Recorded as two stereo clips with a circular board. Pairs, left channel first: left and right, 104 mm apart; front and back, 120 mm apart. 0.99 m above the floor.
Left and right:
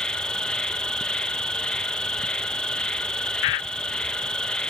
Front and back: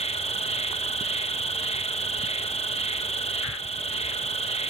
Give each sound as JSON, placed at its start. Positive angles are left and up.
{"t": 0.0, "sound": "an insect", "azimuth_deg": 10, "distance_m": 1.0}